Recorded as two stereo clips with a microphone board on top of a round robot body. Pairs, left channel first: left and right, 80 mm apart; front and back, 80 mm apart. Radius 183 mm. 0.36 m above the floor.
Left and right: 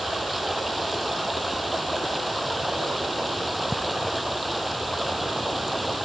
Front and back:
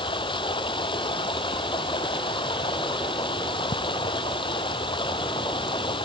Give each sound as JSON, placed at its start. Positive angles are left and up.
{"t": 0.0, "sound": "running water", "azimuth_deg": 0}